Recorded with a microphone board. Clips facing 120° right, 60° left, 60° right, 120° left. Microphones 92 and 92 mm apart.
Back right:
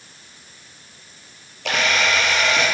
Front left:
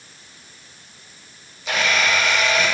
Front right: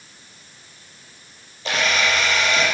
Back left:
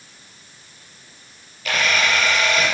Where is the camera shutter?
120° right, 6 m.